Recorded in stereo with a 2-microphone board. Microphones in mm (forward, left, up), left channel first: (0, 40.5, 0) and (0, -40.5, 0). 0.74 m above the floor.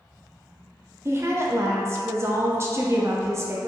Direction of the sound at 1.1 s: 35° right (ahead or behind).